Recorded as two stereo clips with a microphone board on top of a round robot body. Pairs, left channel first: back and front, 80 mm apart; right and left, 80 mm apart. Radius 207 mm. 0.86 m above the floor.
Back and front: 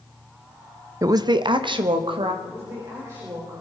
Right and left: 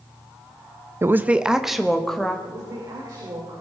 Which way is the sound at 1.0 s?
40° left.